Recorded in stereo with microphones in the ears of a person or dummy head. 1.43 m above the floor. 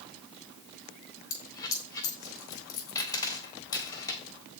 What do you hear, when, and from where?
1.3 s a dropped coin: 20° left (ahead or behind), 1.8 m